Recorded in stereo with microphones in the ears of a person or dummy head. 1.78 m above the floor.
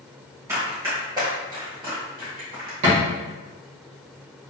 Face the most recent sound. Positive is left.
turn(degrees=-35)  # may be behind; listen again after turning